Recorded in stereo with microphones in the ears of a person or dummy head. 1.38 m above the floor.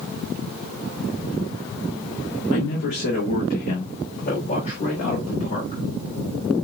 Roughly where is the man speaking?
Left.